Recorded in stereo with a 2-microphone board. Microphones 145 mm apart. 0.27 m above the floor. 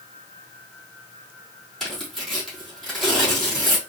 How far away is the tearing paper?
About 3 m.